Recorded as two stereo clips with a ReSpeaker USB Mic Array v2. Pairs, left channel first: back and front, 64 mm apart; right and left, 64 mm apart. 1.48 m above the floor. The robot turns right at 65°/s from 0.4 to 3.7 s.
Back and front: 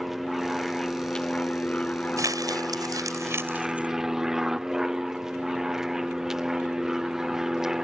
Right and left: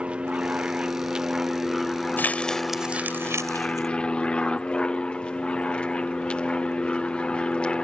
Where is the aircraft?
80° left; by 7.8 s 65° right.